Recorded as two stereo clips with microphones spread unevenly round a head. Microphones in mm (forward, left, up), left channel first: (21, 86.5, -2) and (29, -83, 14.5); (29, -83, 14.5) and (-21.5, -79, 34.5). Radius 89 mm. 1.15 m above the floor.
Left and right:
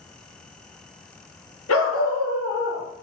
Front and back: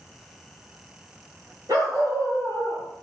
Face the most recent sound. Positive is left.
turn(degrees=100)